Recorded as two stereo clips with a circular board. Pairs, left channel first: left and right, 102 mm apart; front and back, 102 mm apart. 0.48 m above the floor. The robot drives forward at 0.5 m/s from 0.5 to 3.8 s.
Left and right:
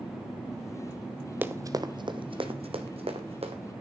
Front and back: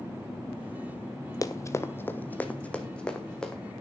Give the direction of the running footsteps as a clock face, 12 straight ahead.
1 o'clock.